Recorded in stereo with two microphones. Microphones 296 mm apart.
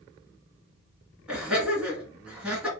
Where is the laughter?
5° right (ahead or behind), 1.4 m.